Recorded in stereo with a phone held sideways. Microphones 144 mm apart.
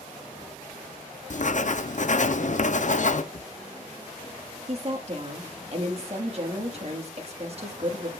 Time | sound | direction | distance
1.3 | writing | 60° left (ahead or behind) | 0.6 m
3.3 | a drawer | 50° left (ahead or behind) | 1.1 m
4.7 | a woman speaking | 45° right (ahead or behind) | 1.4 m